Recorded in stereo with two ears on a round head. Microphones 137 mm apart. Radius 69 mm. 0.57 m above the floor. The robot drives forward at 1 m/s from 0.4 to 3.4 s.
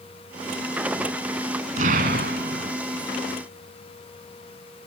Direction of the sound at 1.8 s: 50° right (ahead or behind).